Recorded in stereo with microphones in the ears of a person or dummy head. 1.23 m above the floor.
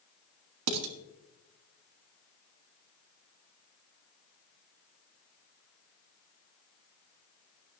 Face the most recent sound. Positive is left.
turn(degrees=-75)  # may be behind; listen again after turning